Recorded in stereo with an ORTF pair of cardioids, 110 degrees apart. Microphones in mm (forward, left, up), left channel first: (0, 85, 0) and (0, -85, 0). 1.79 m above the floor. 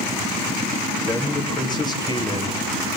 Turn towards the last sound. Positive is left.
turn(degrees=25)